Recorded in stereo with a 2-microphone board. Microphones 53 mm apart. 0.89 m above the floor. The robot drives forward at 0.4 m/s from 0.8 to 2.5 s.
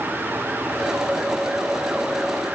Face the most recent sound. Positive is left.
No sound to turn to.